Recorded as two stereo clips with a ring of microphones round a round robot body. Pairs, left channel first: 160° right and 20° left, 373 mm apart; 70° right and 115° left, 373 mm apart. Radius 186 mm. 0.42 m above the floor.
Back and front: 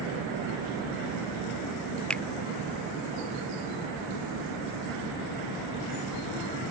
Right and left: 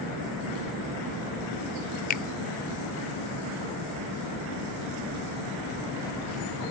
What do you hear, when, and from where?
2.1 s a finger snap: 75° right